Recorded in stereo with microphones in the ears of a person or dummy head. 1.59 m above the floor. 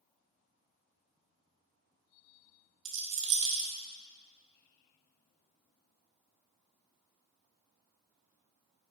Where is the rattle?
40° right (ahead or behind), 1.2 m.